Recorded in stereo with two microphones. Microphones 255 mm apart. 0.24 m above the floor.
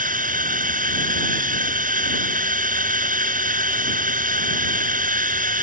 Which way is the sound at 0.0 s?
30° right (ahead or behind).